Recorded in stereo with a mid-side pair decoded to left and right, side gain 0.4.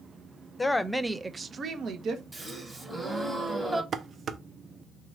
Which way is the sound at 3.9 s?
60° right.